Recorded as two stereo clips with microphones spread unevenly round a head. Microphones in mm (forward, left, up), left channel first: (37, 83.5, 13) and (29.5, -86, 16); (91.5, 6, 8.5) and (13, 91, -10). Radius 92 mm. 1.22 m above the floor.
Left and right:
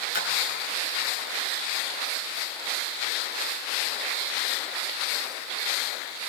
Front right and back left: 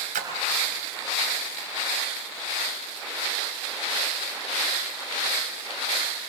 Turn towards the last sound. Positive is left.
turn(degrees=135)